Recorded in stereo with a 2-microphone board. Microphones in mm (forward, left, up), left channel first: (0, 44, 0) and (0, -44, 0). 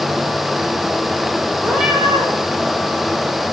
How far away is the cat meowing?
About 4.5 m.